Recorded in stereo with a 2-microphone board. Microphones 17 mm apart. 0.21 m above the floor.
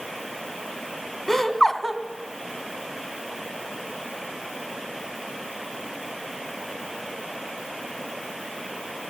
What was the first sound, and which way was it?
Laughter, 15° left (ahead or behind).